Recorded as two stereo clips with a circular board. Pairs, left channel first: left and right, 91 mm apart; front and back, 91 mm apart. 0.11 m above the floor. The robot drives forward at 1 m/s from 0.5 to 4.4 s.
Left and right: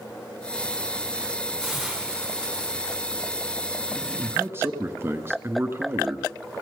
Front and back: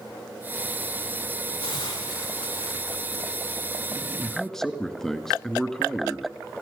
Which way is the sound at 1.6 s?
Straight ahead.